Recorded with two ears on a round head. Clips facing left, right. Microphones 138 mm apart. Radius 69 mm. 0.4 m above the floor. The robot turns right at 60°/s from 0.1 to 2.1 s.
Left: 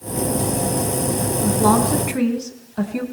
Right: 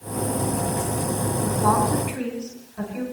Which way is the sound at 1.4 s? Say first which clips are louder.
Left 4 dB; 30° left.